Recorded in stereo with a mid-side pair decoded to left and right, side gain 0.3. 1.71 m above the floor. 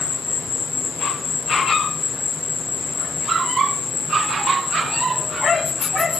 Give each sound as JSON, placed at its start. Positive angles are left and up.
{"t": 0.0, "sound": "an insect", "azimuth_deg": 70, "distance_m": 9.0}